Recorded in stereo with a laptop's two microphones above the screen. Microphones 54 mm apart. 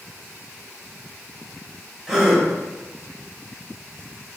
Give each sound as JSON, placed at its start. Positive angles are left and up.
{"t": 2.1, "sound": "a gasp", "side_deg": -5, "distance_m": 0.8}